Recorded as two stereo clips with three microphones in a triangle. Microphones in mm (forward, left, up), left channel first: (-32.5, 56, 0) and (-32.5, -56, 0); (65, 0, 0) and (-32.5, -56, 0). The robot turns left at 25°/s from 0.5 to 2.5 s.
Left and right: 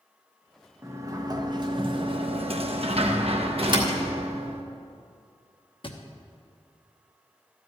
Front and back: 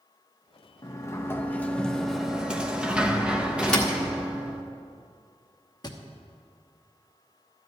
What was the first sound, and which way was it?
A sliding door, 25° right.